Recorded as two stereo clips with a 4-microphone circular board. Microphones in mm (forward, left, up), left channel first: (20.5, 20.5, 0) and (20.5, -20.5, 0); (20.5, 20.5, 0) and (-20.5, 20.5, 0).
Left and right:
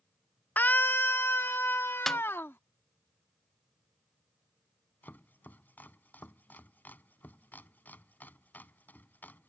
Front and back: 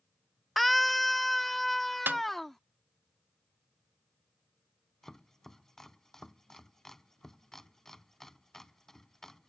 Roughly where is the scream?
Left.